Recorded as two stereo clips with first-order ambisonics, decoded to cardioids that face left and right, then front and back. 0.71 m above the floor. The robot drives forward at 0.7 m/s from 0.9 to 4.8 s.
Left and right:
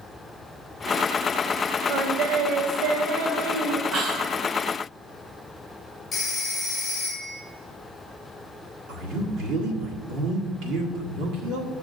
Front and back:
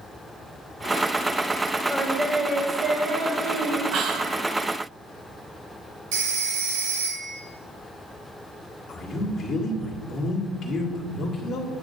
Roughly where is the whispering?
Behind right.